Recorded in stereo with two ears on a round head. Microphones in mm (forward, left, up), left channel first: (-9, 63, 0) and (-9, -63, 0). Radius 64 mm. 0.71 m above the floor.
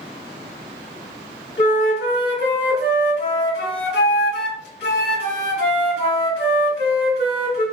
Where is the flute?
80° left, 1.6 m.